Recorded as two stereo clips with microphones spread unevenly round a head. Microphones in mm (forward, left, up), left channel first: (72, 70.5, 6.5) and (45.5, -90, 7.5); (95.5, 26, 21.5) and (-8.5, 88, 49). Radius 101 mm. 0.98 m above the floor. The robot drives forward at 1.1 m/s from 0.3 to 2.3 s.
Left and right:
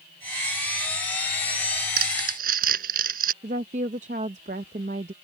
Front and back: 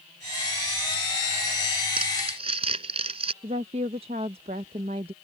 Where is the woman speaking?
155° right.